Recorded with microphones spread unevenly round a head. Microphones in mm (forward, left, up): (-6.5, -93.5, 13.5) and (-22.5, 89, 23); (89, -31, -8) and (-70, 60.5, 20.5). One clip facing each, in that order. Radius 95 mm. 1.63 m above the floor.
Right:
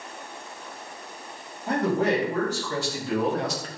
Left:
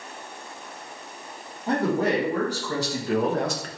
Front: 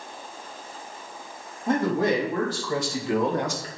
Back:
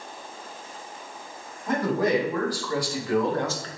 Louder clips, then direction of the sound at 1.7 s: Even, front 1 dB; 35° left.